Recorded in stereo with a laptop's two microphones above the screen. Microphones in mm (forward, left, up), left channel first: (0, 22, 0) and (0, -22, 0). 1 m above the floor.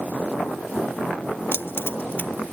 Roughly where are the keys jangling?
Left.